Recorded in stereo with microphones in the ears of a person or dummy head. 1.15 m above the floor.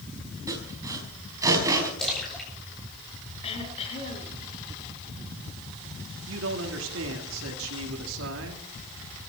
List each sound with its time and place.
0.5 s sawing: 15° right (ahead or behind), 4.5 m
2.0 s a splash: 5° left (ahead or behind), 7.5 m
3.4 s throat clearing: 30° left (ahead or behind), 5 m
6.3 s a man speaking: 75° right (ahead or behind), 3 m